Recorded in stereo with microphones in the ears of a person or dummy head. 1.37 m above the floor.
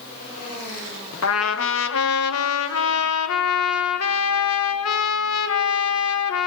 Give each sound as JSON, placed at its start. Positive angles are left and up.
{"t": 1.2, "sound": "a trumpet", "side_deg": 80, "distance_m": 1.5}